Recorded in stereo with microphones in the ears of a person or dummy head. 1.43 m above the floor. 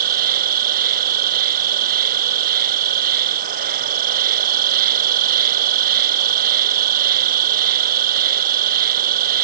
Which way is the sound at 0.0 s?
50° right (ahead or behind).